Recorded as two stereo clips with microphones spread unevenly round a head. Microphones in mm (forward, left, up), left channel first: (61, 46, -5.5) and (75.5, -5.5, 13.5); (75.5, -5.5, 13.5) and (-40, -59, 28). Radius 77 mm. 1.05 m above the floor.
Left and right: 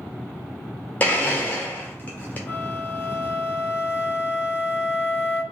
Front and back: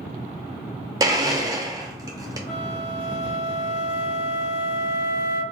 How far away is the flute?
About 1.5 m.